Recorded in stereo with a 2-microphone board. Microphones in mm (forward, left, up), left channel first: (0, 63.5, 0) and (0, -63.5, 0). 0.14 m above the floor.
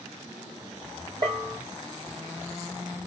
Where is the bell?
30° right (ahead or behind), 1.1 m.